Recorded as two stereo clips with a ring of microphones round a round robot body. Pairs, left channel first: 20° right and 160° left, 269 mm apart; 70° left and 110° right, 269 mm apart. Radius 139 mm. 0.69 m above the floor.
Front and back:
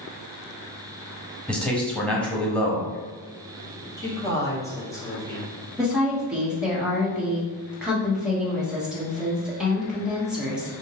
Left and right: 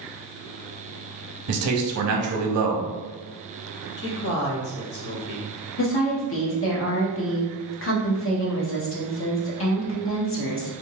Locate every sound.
1.5 s a man speaking: 110° right, 1.0 m
4.0 s a man speaking: 50° left, 1.3 m
5.8 s a woman speaking: 70° left, 1.1 m